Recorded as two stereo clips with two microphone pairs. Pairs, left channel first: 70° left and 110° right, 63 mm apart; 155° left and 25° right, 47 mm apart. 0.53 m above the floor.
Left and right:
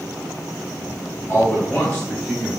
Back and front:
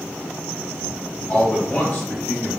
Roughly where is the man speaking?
Left.